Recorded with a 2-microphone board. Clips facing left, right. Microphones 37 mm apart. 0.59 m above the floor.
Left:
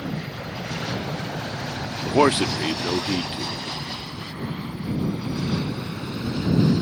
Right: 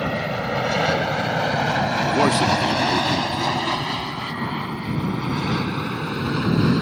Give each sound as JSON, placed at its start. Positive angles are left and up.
{"t": 0.0, "sound": "an aircraft", "side_deg": -65}
{"t": 2.0, "sound": "a man speaking", "side_deg": 25}